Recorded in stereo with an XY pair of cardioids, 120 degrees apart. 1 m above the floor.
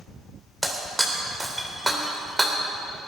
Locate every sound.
0.6 s breaking glass: 10° right, 2 m